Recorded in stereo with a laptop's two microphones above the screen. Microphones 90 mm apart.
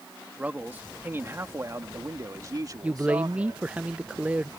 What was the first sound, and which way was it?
A man speaking, 15° right (ahead or behind).